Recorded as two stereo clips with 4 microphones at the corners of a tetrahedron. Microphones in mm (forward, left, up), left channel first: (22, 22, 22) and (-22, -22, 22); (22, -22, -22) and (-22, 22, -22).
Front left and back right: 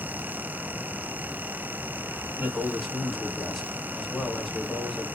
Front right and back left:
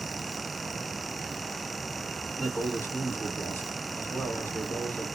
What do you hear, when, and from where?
2.4 s a man speaking: 40° right, 1.3 m